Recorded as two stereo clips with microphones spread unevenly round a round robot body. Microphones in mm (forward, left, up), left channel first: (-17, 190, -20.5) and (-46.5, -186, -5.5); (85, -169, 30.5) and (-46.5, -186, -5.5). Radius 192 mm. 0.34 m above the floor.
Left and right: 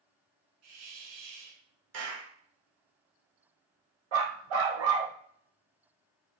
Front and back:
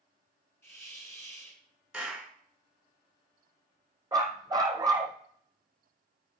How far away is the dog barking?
About 3.5 m.